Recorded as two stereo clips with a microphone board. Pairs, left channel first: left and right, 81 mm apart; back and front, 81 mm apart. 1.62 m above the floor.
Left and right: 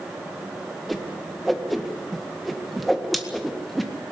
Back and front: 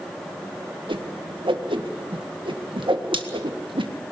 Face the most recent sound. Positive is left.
turn(degrees=0)